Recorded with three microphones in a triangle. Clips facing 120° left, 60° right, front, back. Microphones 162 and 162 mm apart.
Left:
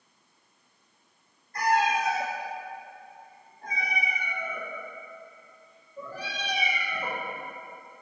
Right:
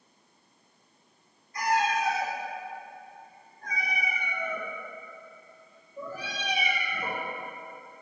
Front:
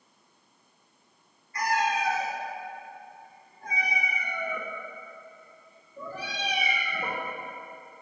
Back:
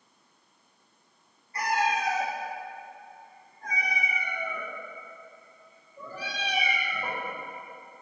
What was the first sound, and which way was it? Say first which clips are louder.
A cat meowing: left 2 dB, even; 125° left.